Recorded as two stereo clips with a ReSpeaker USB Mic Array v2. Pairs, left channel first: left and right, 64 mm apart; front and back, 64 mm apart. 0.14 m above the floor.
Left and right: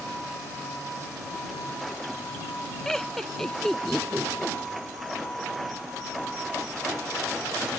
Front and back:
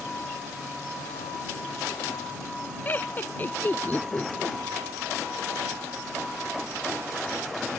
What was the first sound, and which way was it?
Laughter, 15° left.